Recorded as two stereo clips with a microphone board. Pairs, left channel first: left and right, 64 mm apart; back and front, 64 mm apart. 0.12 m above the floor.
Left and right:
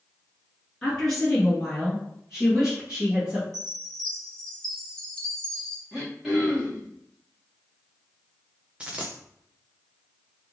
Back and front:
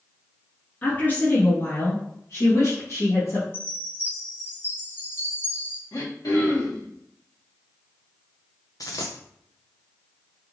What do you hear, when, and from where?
0.8 s a woman speaking: 160° left, 1.4 m; by 3.4 s 160° right, 2 m
3.5 s a chime: 160° left, 1.6 m
5.9 s throat clearing: 170° right, 2.5 m
8.8 s a dropped coin: 160° right, 1.1 m